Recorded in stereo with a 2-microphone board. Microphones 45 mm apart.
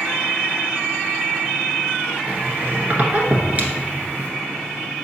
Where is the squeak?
35° right (ahead or behind), 1.1 m.